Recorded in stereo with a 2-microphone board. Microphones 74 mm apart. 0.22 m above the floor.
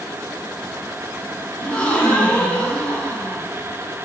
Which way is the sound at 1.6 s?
15° left (ahead or behind).